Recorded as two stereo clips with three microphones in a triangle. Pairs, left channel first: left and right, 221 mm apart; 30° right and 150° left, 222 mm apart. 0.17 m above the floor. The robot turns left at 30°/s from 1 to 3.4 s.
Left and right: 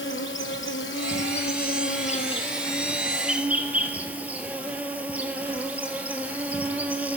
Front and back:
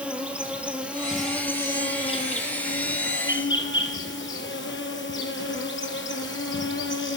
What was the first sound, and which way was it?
An insect, 65° left.